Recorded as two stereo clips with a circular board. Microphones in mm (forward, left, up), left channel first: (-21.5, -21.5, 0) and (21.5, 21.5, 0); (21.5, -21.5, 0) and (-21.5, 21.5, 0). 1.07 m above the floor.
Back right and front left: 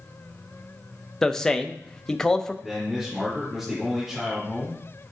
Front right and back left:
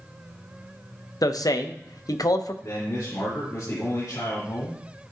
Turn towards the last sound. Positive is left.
turn(degrees=-35)